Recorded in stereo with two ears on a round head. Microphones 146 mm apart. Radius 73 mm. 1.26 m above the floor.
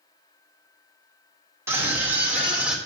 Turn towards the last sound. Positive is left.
turn(degrees=-5)  # may be behind; listen again after turning